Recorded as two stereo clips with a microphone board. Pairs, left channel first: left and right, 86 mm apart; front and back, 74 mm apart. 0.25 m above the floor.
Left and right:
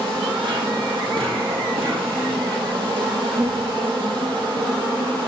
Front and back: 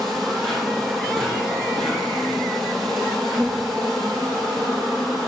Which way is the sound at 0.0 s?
85° right.